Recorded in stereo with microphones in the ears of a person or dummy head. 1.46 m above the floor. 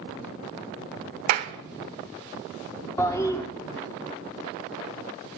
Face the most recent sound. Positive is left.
turn(degrees=15)  # may be behind; listen again after turning